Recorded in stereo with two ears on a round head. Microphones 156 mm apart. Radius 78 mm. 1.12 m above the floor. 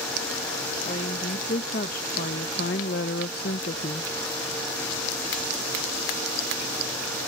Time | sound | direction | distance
0.8 | a woman speaking | 40° left (ahead or behind) | ?